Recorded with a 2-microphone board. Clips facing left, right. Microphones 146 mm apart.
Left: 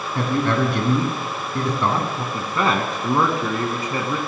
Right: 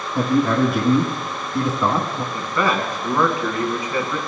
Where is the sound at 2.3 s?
25° left (ahead or behind), 1.4 m.